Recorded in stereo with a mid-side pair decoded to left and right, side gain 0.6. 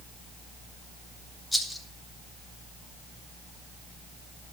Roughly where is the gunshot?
No gunshot in this recording.